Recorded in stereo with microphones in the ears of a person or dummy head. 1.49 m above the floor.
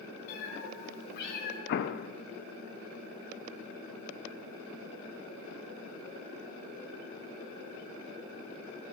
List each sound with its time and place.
0.3 s a cat meowing: 65° left (ahead or behind), 5 m; by 1.6 s 60° left (ahead or behind), 5 m
1.7 s an explosion: 55° left (ahead or behind), 0.6 m